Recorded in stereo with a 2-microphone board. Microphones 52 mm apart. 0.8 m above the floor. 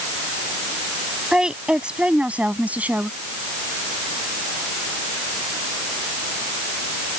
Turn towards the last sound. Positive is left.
turn(degrees=-30)  # may be behind; listen again after turning